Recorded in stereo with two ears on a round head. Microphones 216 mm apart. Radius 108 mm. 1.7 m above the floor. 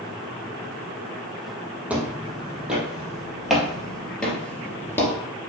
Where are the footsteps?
5° right (ahead or behind), 3 m; by 5.1 s 10° left (ahead or behind), 1.7 m.